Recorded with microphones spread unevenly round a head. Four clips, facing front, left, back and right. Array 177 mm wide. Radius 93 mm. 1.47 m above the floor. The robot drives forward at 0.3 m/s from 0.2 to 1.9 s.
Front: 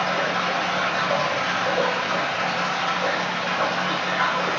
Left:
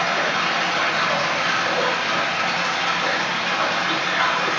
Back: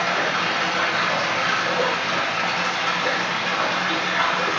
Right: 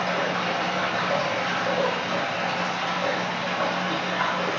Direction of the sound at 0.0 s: 145° left.